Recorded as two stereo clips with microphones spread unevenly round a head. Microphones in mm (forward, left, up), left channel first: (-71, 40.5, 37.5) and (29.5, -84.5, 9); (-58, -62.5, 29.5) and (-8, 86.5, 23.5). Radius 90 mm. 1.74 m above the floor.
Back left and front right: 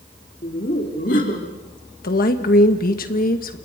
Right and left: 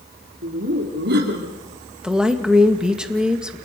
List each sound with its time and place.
0.4 s laughter: 85° left, 4 m
2.0 s a woman speaking: 155° left, 2 m